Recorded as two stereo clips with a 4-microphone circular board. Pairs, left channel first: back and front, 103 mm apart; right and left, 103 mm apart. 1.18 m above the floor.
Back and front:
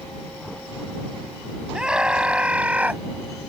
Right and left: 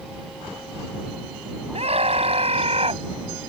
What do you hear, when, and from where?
1.7 s a scream: 85° left; by 3.0 s 75° left